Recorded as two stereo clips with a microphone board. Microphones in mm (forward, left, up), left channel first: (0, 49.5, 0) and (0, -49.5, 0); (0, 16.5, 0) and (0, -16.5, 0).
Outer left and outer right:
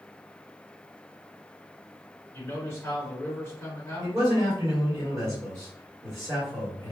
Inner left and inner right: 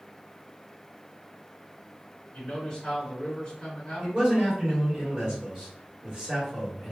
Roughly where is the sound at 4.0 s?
Right.